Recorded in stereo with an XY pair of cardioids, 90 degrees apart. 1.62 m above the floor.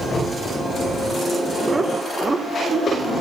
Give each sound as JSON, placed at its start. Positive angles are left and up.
{"t": 1.7, "sound": "laughter", "azimuth_deg": -30, "distance_m": 0.6}